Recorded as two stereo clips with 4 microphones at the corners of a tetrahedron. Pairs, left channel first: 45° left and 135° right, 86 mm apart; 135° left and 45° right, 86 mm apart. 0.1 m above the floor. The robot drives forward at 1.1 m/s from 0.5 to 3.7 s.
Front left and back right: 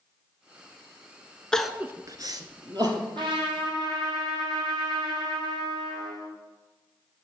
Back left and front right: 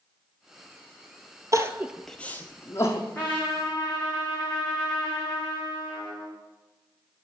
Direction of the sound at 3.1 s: 155° right.